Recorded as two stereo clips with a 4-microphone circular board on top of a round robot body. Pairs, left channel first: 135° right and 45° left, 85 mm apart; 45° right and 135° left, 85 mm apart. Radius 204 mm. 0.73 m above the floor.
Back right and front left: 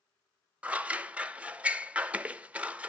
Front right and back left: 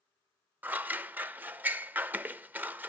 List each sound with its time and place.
0.6 s scissors: 100° left, 1.0 m